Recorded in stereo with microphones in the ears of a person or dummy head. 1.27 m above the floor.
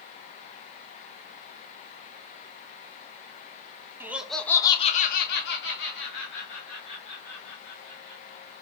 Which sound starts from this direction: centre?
Laughter, at 4.0 s.